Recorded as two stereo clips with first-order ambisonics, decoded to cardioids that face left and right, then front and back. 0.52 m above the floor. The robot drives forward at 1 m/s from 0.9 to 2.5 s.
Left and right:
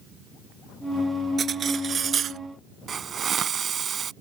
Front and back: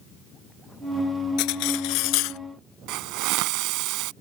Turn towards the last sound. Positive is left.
turn(degrees=-155)